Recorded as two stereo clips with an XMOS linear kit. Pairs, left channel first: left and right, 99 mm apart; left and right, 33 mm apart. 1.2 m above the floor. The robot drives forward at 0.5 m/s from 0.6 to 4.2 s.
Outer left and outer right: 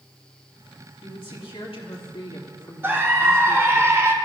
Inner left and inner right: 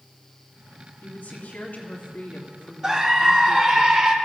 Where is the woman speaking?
80° left, 2.5 m; by 3.8 s 55° left (ahead or behind), 3 m.